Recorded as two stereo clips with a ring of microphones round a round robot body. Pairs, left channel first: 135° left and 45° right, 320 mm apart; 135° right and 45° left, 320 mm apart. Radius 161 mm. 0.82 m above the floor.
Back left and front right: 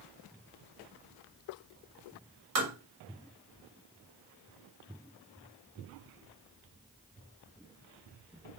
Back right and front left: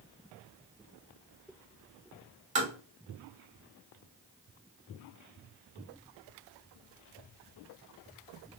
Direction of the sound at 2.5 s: 20° right.